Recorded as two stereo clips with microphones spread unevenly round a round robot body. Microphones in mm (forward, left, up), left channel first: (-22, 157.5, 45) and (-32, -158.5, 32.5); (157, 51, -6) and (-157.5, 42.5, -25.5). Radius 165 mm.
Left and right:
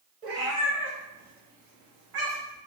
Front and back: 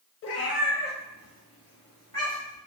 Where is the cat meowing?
30° right, 0.6 m; by 2.6 s 75° right, 1.9 m.